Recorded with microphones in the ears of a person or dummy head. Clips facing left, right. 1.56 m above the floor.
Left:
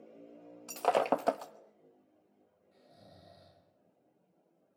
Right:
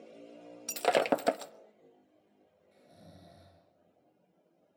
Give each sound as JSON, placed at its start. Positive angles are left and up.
{"t": 0.7, "sound": "breaking glass", "side_deg": -20, "distance_m": 0.9}
{"t": 2.7, "sound": "snoring", "side_deg": -25, "distance_m": 8.5}